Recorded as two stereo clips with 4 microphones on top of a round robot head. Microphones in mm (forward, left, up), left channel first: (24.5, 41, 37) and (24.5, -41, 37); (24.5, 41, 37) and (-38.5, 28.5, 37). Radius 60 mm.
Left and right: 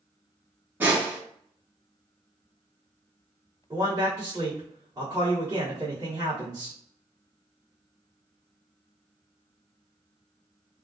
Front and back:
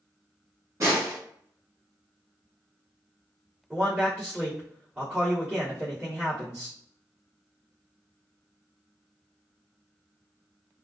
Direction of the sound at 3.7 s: 110° right.